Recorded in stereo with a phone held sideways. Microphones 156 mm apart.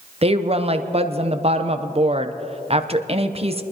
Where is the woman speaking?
40° right (ahead or behind), 0.8 m.